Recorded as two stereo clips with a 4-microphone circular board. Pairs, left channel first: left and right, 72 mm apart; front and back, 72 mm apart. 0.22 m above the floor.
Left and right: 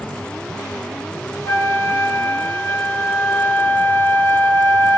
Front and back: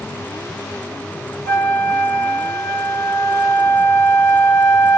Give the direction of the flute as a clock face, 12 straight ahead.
11 o'clock.